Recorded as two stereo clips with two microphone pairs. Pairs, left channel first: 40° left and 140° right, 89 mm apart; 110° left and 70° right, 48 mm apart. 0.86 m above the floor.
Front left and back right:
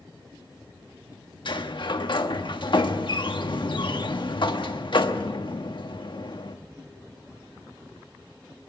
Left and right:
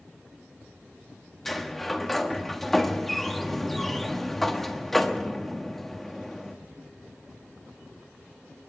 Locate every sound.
1.4 s a sliding door: 25° left, 1.4 m